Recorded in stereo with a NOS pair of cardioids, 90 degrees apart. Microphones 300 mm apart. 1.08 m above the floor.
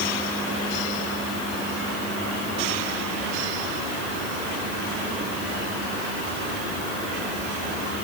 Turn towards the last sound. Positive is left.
No sound to turn to.